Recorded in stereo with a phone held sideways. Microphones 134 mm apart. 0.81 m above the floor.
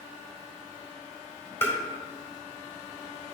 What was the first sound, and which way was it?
Tapping, 20° left (ahead or behind).